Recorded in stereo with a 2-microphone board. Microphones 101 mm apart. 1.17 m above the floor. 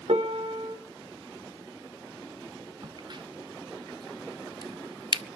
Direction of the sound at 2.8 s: 50° right (ahead or behind).